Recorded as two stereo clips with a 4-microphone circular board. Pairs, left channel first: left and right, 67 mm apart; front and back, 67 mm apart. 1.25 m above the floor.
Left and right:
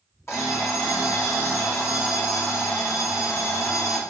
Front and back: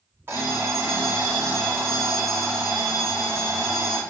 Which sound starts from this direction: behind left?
An alarm clock, at 0.3 s.